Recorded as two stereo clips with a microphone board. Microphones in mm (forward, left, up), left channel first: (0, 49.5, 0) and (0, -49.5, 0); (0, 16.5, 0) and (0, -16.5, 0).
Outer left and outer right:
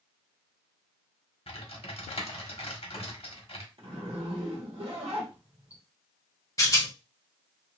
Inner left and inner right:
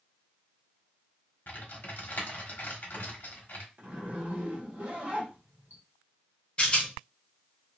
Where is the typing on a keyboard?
75° left (ahead or behind), 0.9 m.